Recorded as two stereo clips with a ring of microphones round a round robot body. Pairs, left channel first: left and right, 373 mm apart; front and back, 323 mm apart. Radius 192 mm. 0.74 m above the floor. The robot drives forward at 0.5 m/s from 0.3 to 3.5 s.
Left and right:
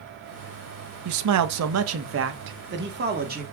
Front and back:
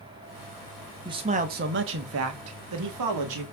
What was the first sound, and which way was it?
A man speaking, 105° right.